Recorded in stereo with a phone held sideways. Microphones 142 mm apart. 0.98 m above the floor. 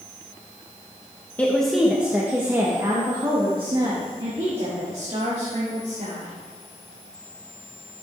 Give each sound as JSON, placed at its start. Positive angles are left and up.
{"t": 1.4, "sound": "a woman speaking", "side_deg": 10, "distance_m": 1.2}